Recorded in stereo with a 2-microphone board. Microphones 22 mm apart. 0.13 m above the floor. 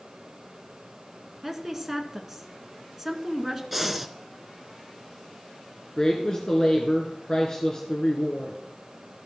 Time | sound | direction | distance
1.4 | a woman speaking | 10° right (ahead or behind) | 1.3 m
3.7 | breathing | 10° right (ahead or behind) | 0.7 m
6.0 | a woman speaking | 30° left (ahead or behind) | 1.5 m